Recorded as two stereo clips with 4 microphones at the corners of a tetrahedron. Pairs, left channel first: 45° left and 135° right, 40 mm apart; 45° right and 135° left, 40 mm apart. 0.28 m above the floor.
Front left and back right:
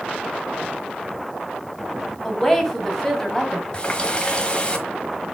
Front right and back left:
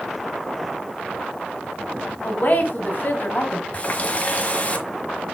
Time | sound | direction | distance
2.2 | a woman speaking | 30° right | 1.8 m
3.7 | a running tap | 10° right | 1.2 m